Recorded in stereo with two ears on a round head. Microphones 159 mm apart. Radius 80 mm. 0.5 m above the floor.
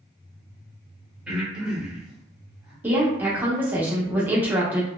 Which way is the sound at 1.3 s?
5° right (ahead or behind).